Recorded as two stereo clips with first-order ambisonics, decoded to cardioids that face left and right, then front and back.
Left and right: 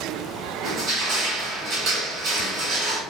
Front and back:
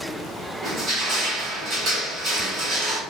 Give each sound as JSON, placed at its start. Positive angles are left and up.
{"t": 0.6, "sound": "crushing", "azimuth_deg": -130, "distance_m": 1.3}